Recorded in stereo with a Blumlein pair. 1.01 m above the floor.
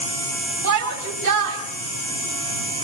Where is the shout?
60° right, 6 m.